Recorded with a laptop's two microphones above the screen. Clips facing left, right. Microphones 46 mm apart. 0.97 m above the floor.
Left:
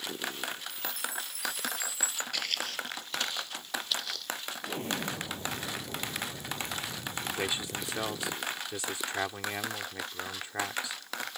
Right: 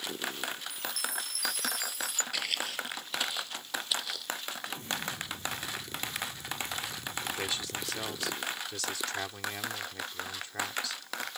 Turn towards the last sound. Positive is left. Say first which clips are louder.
# left 2 dB
turn(degrees=25)  # may be behind; listen again after turning